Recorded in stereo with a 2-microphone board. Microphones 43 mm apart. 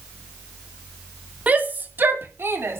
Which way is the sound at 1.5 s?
35° right (ahead or behind).